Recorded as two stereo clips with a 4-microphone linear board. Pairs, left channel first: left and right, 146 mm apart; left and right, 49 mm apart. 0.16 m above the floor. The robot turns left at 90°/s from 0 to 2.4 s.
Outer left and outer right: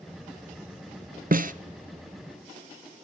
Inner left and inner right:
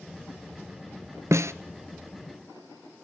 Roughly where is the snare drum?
Right.